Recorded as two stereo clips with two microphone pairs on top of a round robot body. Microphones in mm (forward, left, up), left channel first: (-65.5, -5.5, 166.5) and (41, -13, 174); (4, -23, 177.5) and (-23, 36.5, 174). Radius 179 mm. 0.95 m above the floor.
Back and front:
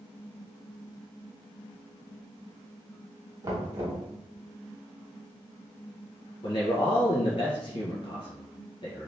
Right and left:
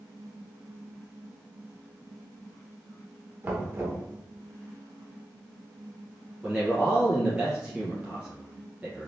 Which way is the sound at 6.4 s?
175° right.